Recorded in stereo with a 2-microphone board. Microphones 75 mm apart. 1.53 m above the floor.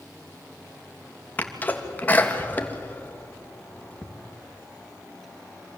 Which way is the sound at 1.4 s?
25° left (ahead or behind).